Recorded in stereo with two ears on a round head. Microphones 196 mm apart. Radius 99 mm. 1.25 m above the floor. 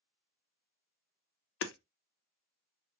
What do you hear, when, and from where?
1.6 s hammering: 55° left (ahead or behind), 0.5 m